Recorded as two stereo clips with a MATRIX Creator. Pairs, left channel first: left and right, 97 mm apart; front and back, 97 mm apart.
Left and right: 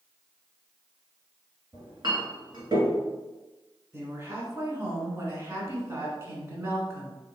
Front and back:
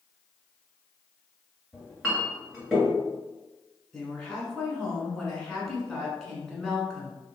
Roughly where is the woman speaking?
Right.